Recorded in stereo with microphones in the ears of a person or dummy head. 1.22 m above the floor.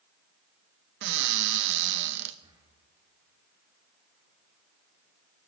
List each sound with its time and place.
1.0 s a cupboard door: 65° right (ahead or behind), 0.9 m
2.4 s breathing: 20° right (ahead or behind), 2.5 m